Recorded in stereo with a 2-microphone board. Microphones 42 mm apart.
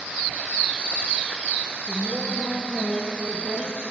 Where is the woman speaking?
25° left (ahead or behind), 4 m; by 3.8 s 35° left (ahead or behind), 1.9 m.